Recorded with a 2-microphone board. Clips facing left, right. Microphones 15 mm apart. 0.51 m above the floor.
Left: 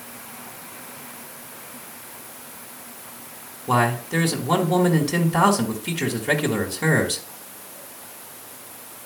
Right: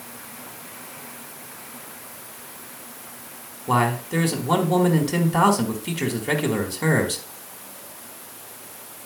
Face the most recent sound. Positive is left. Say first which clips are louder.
# left 1 dB
turn(degrees=5)  # may be behind; listen again after turning